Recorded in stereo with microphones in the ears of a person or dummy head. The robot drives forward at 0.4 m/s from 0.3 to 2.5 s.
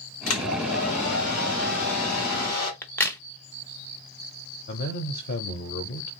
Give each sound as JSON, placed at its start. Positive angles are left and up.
{"t": 0.3, "sound": "a hair dryer", "side_deg": 70, "distance_m": 2.0}
{"t": 2.8, "sound": "a crack", "side_deg": 10, "distance_m": 0.6}
{"t": 4.7, "sound": "a man speaking", "side_deg": 55, "distance_m": 0.7}